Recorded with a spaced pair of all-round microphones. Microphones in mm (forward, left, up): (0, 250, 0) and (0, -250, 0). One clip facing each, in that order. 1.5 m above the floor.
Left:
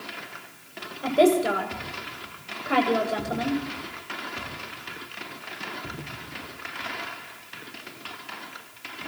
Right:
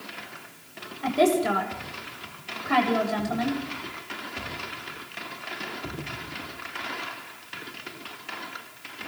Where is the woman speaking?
20° right (ahead or behind), 7.5 m.